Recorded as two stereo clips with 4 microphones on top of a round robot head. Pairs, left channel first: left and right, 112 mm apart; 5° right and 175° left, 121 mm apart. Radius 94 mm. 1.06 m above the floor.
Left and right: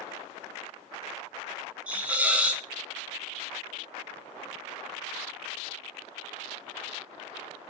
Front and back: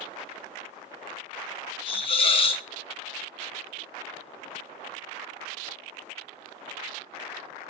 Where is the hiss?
15° right, 0.8 m.